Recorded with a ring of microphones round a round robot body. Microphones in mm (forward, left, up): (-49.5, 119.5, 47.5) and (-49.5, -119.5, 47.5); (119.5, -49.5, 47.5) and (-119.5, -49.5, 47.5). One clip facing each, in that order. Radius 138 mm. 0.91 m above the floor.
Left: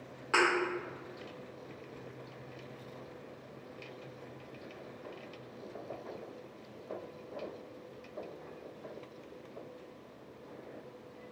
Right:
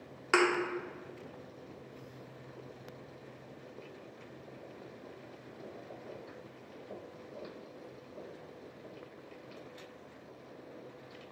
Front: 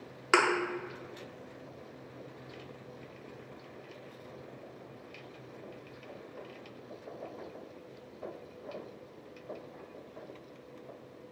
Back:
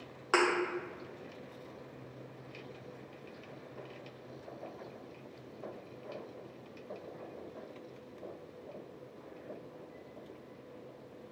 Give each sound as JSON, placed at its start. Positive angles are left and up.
{"t": 0.3, "sound": "a thud", "azimuth_deg": -55, "distance_m": 0.7}